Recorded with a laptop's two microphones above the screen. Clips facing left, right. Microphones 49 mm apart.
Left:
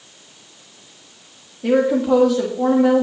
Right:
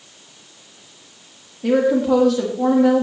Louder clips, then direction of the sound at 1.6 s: Even; 5° left (ahead or behind).